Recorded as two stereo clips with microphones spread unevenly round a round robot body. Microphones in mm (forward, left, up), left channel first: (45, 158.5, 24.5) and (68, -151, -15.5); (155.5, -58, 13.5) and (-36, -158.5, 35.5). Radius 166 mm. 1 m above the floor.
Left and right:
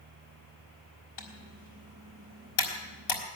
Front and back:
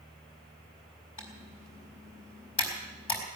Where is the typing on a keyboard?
100° left, 3.5 m.